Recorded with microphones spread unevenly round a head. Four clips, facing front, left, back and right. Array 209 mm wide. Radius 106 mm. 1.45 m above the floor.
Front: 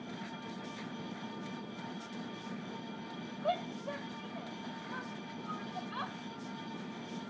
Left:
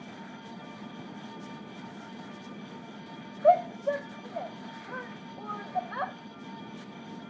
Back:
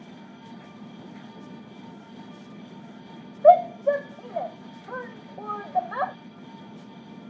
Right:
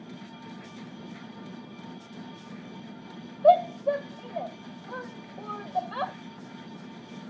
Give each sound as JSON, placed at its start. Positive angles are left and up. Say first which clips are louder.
{"t": 3.4, "sound": "a shout", "louder": "right 3 dB, back 20 dB", "azimuth_deg": -170}